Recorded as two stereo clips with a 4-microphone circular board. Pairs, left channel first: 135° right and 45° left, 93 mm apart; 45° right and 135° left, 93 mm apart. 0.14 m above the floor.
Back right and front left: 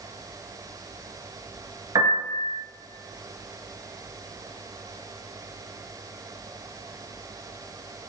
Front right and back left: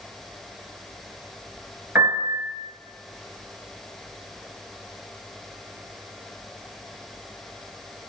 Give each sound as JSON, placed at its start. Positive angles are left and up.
{"t": 1.9, "sound": "a piano", "azimuth_deg": 70, "distance_m": 2.5}